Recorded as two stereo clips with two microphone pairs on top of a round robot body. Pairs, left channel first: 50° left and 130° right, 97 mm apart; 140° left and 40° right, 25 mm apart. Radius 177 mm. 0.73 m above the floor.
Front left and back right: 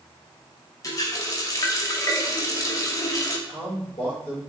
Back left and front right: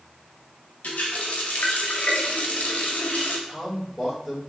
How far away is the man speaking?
About 1.9 m.